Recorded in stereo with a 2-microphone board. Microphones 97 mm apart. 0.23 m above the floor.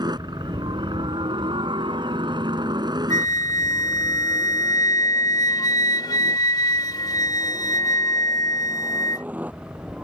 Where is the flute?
45° left (ahead or behind).